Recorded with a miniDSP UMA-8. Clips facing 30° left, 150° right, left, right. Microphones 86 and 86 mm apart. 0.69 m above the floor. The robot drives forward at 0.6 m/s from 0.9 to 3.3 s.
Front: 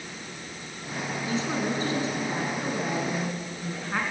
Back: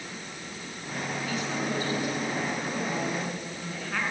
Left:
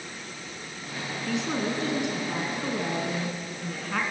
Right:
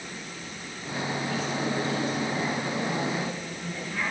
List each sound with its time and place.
1.3 s a woman speaking: 90° left, 7.5 m; by 4.0 s 100° left, 7.5 m